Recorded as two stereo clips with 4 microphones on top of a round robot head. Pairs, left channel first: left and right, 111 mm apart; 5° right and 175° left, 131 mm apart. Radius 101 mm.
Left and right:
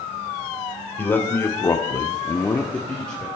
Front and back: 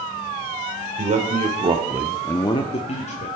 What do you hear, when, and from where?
1.0 s a man speaking: 160° left, 1.7 m; by 3.3 s 5° left, 1.6 m